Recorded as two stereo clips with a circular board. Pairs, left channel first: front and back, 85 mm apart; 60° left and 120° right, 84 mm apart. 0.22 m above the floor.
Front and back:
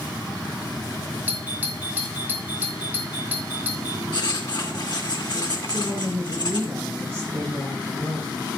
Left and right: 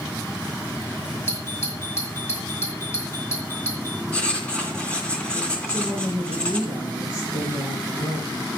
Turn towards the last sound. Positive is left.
turn(degrees=110)